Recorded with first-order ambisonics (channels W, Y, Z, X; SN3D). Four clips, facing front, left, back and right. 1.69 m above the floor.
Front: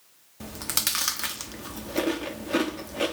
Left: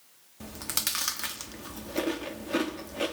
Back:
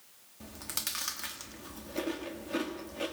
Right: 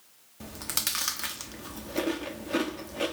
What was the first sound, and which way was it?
Chewing, straight ahead.